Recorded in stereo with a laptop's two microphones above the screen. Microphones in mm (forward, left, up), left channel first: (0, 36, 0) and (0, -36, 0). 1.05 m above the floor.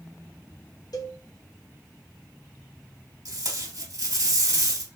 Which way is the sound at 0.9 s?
60° left (ahead or behind).